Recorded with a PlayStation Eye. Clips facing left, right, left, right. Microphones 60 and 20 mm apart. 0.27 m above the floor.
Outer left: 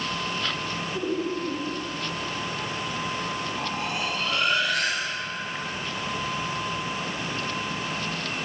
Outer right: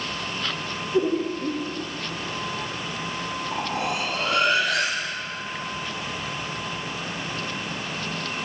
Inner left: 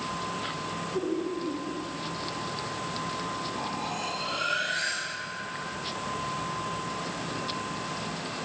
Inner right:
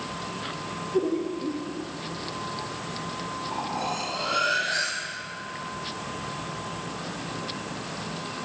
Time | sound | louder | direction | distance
0.9 | laughter | outer right 6 dB, inner right 5 dB | 50° right (ahead or behind) | 5.5 m
3.5 | cutlery clinking | outer right 3 dB, inner right 3 dB | 85° right | 7 m